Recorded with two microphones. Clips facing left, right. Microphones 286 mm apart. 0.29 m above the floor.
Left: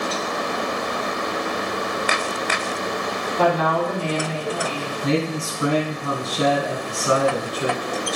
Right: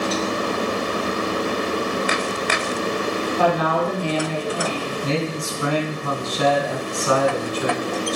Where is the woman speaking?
10° right (ahead or behind), 3 m.